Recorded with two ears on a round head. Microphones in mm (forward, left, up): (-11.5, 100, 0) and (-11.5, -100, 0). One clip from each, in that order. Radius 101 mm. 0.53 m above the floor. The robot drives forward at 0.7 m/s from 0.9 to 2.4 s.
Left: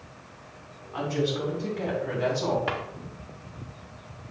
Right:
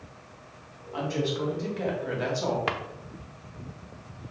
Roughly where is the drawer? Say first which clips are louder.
Even; right.